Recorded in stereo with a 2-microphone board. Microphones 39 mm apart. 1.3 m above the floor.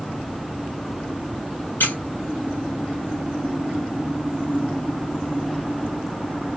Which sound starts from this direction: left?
A squeak, at 1.8 s.